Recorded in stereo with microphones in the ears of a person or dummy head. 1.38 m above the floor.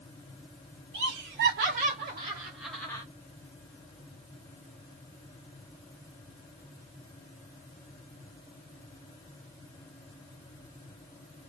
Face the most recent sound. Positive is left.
turn(degrees=15)  # may be behind; listen again after turning